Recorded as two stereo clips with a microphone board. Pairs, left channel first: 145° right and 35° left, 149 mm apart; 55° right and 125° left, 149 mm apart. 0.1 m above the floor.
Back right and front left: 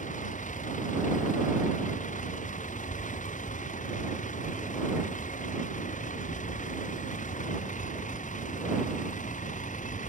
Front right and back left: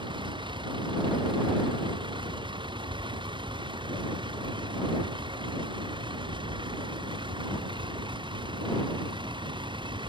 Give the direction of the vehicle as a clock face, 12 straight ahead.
6 o'clock.